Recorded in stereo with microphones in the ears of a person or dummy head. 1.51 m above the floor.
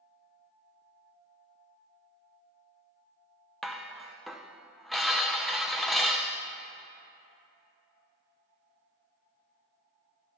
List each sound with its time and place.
3.6 s dishes clattering: centre (ahead or behind), 0.5 m